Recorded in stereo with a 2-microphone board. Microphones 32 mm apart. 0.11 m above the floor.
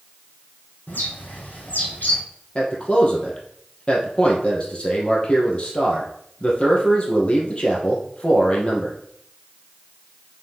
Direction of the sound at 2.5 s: 35° left (ahead or behind).